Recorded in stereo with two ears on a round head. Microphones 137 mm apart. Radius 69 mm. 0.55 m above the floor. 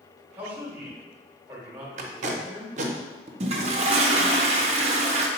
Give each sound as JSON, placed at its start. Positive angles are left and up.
{"t": 0.4, "sound": "a man speaking", "side_deg": -15, "distance_m": 1.4}
{"t": 2.0, "sound": "tape being pulled", "side_deg": -50, "distance_m": 0.6}
{"t": 3.4, "sound": "a toilet flushing", "side_deg": -45, "distance_m": 0.6}